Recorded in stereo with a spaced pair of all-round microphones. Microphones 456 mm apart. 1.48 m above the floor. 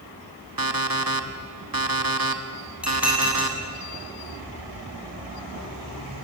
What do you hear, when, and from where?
0.6 s an alarm clock: 50° right (ahead or behind), 1.6 m
2.8 s dishes clattering: centre (ahead or behind), 8 m